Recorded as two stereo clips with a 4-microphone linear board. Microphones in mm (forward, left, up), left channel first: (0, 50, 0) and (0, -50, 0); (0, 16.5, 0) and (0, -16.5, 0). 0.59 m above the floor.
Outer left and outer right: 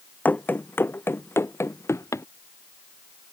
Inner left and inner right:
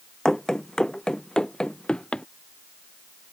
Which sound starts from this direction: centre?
Running footsteps, at 0.2 s.